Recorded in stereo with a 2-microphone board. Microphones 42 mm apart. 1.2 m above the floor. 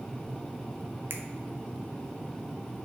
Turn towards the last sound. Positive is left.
turn(degrees=-60)  # may be behind; listen again after turning